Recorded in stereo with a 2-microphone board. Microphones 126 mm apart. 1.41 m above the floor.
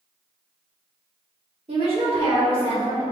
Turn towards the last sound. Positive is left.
turn(degrees=-50)  # may be behind; listen again after turning